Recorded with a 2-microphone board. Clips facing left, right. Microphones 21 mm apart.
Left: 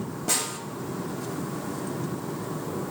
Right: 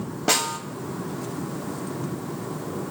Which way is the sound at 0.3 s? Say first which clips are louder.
Right 6 dB; 45° right (ahead or behind).